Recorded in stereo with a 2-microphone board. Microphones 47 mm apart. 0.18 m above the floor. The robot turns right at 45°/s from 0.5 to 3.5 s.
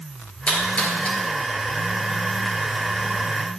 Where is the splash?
25° left (ahead or behind), 2 m; by 1.2 s 50° left (ahead or behind), 2 m.